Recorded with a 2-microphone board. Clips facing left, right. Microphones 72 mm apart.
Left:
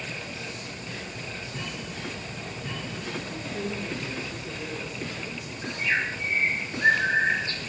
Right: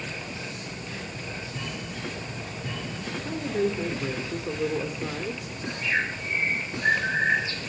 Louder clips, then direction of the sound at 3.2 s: Right 11 dB; 45° right (ahead or behind).